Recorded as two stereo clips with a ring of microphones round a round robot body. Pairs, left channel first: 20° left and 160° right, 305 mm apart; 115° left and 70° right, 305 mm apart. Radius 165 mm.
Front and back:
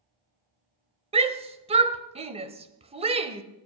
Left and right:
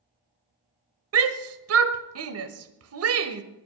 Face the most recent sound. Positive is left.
turn(degrees=-90)